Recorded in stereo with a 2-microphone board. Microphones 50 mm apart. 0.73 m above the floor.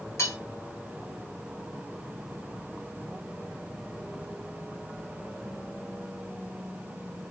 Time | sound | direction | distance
0.2 | cutlery clinking | 75° left (ahead or behind) | 1.4 m